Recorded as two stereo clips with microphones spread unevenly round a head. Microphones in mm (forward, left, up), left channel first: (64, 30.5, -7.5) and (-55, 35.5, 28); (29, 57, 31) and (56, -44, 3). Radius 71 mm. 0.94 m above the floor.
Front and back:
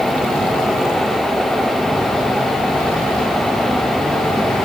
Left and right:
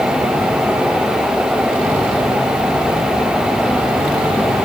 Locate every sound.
Only background noise.